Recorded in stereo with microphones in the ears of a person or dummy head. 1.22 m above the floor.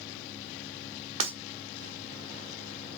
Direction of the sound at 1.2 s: 30° right (ahead or behind).